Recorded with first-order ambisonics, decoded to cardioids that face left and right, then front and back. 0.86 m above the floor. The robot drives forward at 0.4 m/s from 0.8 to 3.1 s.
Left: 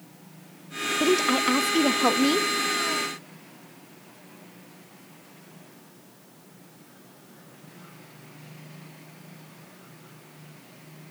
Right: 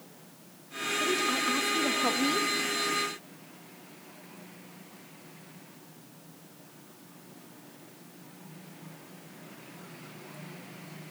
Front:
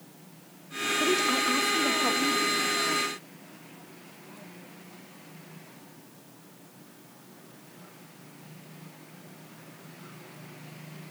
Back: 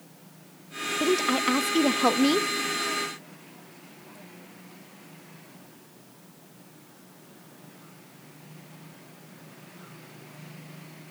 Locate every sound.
1.0 s a woman speaking: 105° left, 0.9 m; by 2.5 s 145° left, 1.2 m